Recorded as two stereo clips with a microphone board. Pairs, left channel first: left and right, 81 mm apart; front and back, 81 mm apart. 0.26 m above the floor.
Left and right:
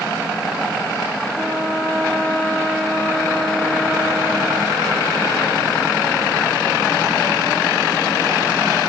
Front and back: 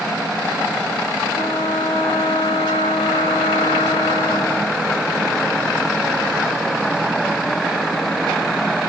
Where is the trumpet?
5° right, 6.5 m.